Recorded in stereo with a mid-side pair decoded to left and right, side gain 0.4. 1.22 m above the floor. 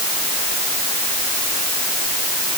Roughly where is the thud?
No thud in this recording.